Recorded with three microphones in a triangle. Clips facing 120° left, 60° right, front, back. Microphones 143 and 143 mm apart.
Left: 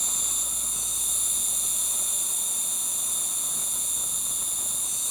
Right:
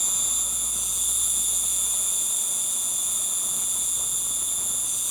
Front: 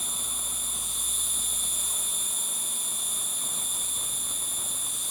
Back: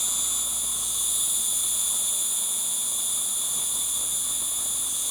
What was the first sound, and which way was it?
An insect, straight behind.